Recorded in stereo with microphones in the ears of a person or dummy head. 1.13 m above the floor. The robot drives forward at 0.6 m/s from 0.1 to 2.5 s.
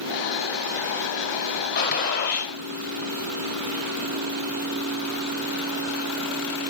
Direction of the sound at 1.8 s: 50° left (ahead or behind).